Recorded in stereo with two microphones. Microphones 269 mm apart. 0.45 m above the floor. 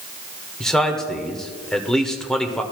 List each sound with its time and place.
0.6 s a man speaking: centre (ahead or behind), 1.3 m